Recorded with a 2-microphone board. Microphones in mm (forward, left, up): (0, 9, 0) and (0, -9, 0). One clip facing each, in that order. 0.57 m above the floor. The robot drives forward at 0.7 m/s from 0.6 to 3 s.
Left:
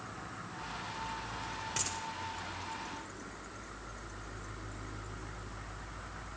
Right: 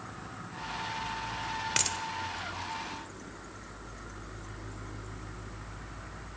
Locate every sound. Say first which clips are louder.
1.8 s a dropped coin: right 7 dB; 80° right, 0.6 m; by 2.0 s 70° right (ahead or behind), 0.7 m